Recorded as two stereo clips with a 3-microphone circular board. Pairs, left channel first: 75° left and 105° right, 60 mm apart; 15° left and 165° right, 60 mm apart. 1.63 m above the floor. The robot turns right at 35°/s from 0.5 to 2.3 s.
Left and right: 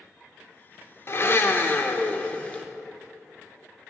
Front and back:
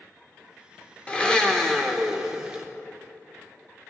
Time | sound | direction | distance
1.1 | a blender | 75° left | 0.9 m